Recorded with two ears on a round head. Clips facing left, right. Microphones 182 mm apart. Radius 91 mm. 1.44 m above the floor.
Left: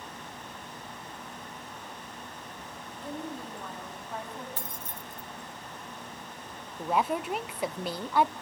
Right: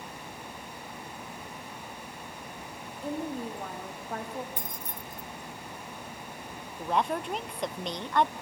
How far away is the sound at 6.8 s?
About 0.5 m.